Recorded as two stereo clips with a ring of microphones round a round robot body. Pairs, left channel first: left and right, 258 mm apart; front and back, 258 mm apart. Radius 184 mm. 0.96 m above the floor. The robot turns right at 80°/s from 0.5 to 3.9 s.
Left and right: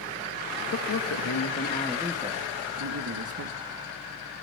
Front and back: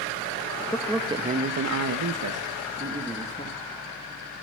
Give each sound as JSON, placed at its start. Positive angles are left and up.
{"t": 0.7, "sound": "a man speaking", "azimuth_deg": 75, "distance_m": 1.3}